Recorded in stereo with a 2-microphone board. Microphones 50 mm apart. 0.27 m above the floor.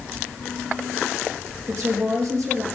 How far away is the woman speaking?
About 5.5 m.